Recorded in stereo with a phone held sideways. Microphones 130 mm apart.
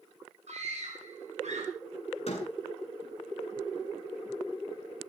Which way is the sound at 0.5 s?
55° right (ahead or behind).